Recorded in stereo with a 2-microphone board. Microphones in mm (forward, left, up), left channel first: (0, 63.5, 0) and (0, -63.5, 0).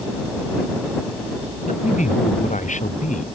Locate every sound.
1.6 s a man speaking: 85° left